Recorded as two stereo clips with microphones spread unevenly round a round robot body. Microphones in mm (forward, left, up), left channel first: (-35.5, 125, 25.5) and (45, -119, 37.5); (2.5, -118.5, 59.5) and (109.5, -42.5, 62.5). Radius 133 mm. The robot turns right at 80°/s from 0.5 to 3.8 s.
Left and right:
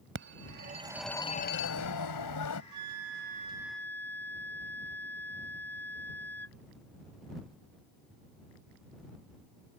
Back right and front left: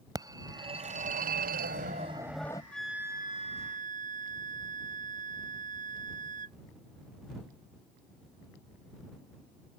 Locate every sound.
0.1 s a phone ringing: 25° right; by 2.6 s 145° left
2.7 s a flute: 65° right; by 6.6 s 25° left